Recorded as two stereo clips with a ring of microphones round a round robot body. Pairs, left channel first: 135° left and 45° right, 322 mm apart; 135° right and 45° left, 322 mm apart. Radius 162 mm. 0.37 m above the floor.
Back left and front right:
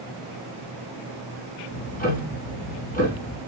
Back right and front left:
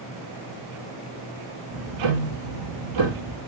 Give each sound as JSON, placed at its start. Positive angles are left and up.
{"t": 1.7, "sound": "ticking", "azimuth_deg": 70, "distance_m": 1.9}